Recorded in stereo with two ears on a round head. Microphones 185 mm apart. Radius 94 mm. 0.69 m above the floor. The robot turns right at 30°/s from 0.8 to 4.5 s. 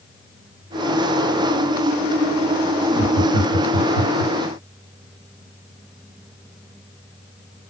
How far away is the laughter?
About 3.5 m.